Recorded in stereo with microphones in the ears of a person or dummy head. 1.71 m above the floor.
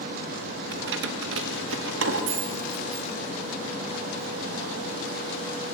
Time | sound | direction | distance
0.7 | keys jangling | 70° right (ahead or behind) | 1.8 m